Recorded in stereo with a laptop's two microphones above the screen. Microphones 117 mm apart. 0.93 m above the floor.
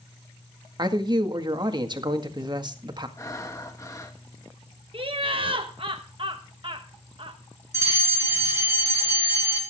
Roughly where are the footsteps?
No footsteps in this recording.